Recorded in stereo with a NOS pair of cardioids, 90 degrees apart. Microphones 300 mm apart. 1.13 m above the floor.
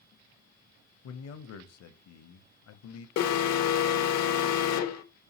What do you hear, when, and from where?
1.0 s a man speaking: 55° left, 0.7 m
3.2 s an alarm: 60° left, 0.6 m